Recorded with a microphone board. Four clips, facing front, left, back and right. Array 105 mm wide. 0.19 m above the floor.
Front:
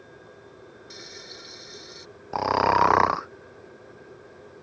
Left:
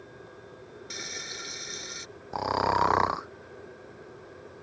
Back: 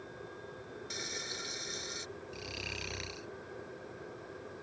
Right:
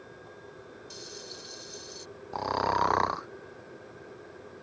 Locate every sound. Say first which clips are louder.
0.9 s frying: left 5 dB, back 1 dB; 105° left
2.3 s snoring: left 2 dB, front 25 dB; 10° left